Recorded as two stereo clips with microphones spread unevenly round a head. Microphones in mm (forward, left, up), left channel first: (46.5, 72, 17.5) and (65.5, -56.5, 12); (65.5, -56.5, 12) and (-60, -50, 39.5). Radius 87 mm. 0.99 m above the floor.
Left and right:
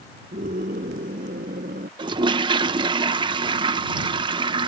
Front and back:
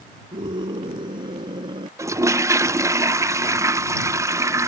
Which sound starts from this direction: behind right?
A scream, at 0.3 s.